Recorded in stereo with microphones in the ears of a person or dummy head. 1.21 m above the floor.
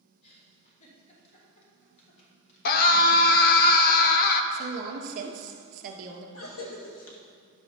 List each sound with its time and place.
0.2 s a giggle: 35° left (ahead or behind), 3 m
2.6 s a scream: 50° left (ahead or behind), 1.1 m
4.5 s a woman speaking: 50° right (ahead or behind), 2.5 m
6.3 s a cough: 75° left (ahead or behind), 1.7 m